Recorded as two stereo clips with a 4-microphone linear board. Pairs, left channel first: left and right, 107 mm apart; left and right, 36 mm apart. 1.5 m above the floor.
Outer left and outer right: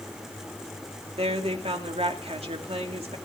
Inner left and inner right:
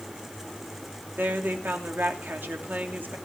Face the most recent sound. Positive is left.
turn(degrees=-65)  # may be behind; listen again after turning